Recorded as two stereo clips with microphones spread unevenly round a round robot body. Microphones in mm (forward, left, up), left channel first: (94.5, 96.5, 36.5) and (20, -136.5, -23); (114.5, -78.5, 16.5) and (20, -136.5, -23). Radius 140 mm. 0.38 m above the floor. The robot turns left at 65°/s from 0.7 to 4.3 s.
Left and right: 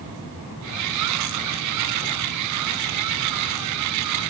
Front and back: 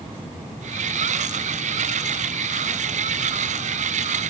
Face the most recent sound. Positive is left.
No sound to turn to.